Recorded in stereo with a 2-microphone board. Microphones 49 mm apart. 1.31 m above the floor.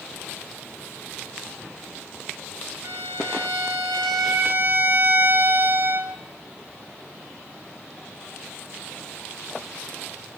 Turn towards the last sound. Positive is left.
turn(degrees=-70)  # may be behind; listen again after turning